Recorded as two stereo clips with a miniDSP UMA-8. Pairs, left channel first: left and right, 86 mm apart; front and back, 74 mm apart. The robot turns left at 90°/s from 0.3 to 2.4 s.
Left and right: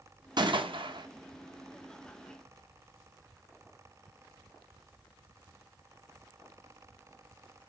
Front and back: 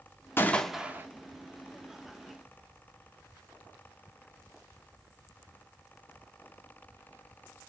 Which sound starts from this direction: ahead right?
A gunshot, at 0.4 s.